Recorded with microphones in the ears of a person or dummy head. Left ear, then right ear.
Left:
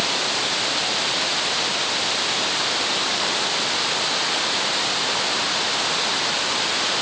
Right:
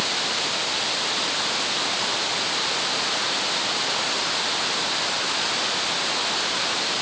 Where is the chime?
No chime in this recording.